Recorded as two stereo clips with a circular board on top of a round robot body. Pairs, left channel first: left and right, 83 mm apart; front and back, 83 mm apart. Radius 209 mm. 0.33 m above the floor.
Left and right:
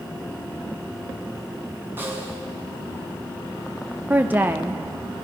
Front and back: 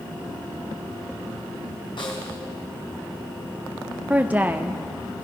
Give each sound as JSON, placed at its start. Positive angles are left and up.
{"t": 2.0, "sound": "a snare drum", "azimuth_deg": -25, "distance_m": 5.0}
{"t": 4.1, "sound": "a woman speaking", "azimuth_deg": -130, "distance_m": 1.3}